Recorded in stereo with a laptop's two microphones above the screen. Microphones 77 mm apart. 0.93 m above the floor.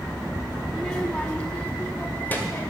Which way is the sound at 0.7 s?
5° left (ahead or behind).